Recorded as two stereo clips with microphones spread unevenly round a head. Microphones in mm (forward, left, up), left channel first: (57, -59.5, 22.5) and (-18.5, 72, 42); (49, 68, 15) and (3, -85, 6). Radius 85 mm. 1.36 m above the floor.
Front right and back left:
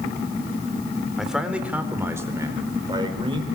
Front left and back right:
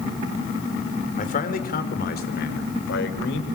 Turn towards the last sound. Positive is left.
turn(degrees=60)